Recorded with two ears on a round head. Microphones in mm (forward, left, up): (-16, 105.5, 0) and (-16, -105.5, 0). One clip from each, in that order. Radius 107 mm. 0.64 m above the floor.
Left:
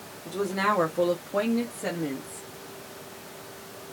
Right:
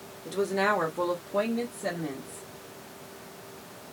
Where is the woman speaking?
15° right (ahead or behind), 0.6 m; by 2.4 s 55° left (ahead or behind), 1.2 m.